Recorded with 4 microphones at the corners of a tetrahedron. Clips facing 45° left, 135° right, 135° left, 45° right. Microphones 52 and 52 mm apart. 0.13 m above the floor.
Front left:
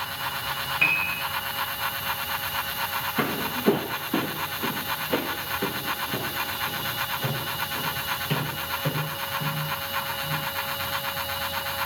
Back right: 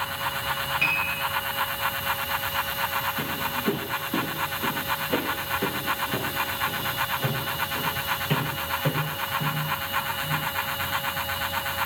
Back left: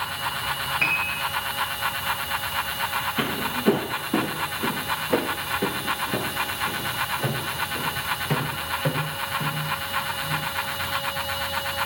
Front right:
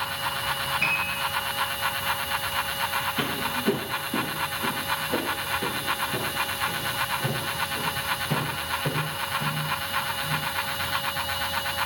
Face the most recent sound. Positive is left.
turn(degrees=150)